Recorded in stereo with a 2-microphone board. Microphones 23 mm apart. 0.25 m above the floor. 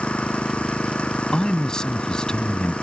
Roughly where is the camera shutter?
I don't hear a camera shutter.